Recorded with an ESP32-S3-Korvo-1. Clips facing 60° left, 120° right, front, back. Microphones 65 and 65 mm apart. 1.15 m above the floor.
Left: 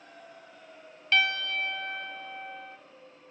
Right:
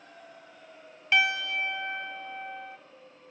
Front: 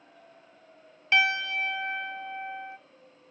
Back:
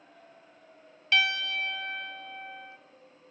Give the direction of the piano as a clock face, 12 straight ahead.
2 o'clock.